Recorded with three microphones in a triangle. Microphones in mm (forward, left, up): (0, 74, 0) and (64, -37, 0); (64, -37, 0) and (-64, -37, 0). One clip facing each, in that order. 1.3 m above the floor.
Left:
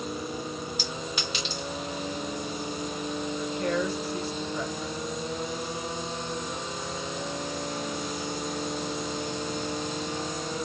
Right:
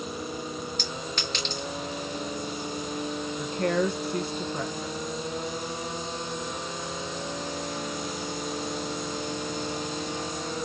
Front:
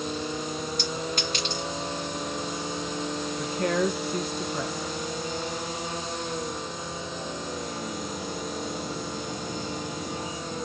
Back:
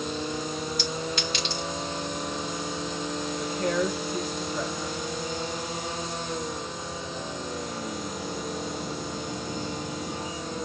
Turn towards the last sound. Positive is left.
turn(degrees=-25)